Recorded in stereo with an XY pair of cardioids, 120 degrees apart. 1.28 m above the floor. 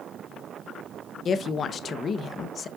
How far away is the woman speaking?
About 0.8 m.